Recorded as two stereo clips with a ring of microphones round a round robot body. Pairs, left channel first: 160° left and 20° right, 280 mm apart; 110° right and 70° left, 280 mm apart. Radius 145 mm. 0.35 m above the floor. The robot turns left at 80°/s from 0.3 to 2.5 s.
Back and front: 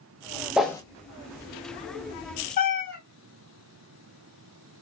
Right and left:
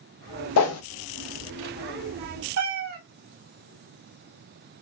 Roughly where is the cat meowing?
Left.